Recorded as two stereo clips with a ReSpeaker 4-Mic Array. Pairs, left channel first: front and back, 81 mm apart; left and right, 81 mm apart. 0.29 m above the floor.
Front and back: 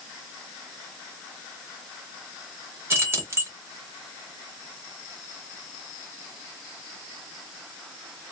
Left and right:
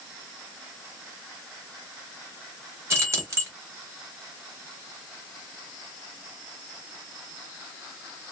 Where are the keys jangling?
130° right, 1.0 m.